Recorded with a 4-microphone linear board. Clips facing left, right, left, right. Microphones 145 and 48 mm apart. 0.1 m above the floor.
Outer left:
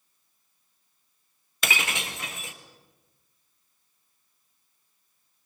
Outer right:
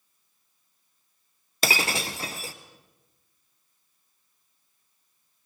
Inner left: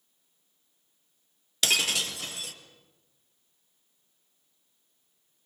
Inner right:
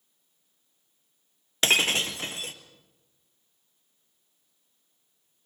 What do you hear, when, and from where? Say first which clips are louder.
1.6 s breaking glass: outer right 4 dB, inner right 4 dB; 35° right (ahead or behind), 1.3 m